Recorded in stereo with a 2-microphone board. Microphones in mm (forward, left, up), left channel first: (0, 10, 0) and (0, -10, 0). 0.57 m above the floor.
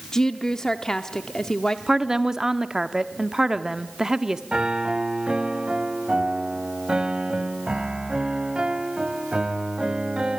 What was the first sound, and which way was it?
A woman speaking, 30° left (ahead or behind).